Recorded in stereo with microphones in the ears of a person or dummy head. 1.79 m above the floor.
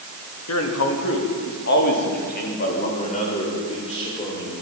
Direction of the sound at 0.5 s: 85° left.